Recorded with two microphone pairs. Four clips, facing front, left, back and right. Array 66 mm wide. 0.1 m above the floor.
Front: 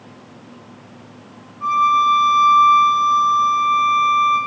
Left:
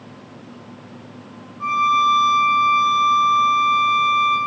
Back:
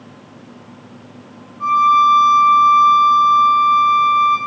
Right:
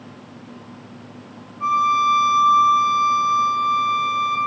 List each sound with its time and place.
1.6 s a violin: 135° left, 2.5 m